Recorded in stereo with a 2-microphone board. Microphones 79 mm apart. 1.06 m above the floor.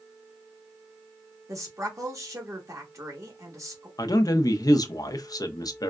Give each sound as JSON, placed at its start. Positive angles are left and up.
{"t": 1.5, "sound": "a woman speaking", "side_deg": -40, "distance_m": 1.3}
{"t": 4.0, "sound": "a man speaking", "side_deg": 50, "distance_m": 0.7}